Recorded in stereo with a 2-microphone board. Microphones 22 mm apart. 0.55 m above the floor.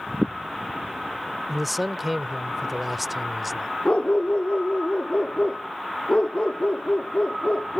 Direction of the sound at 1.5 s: Centre (ahead or behind).